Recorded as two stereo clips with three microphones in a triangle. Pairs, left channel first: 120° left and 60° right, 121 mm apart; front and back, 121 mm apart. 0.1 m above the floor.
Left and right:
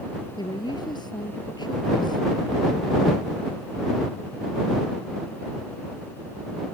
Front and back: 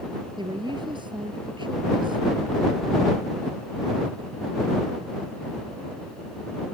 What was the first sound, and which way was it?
A woman speaking, 155° left.